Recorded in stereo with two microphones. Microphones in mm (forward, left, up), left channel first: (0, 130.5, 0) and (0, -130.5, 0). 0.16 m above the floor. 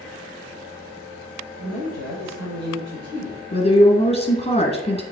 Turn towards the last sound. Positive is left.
turn(degrees=25)  # may be behind; listen again after turning